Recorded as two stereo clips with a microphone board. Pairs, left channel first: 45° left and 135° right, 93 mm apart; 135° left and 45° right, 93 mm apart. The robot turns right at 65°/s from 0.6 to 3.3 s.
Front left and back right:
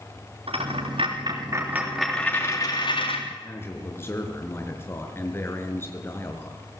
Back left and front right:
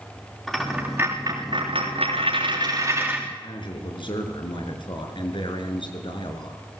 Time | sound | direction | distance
0.5 | a dropped coin | 135° right | 7 m
3.3 | a man speaking | 110° left | 4.5 m